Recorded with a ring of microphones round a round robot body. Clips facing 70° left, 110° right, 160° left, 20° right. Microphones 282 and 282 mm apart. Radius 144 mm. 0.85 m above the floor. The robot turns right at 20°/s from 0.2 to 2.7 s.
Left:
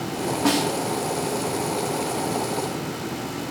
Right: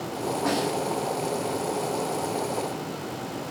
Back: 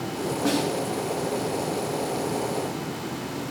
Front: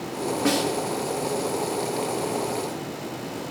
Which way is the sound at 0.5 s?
65° left.